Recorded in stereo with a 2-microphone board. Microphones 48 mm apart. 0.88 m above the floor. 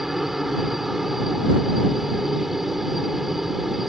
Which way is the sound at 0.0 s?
5° right (ahead or behind).